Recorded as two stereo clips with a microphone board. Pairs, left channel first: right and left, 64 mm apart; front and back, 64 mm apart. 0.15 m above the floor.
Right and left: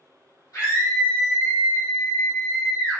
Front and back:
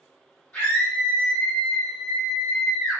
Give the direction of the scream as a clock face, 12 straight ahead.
2 o'clock.